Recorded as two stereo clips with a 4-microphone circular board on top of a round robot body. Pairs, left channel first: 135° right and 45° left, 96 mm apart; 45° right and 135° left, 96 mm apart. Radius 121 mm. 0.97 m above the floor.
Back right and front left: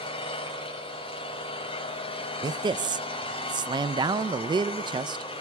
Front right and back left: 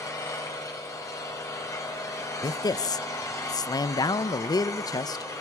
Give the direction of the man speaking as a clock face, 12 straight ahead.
12 o'clock.